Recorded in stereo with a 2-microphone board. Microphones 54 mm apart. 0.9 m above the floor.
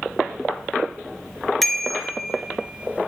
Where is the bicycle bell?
5° left (ahead or behind), 2.5 m; by 3.1 s 35° right (ahead or behind), 1.3 m.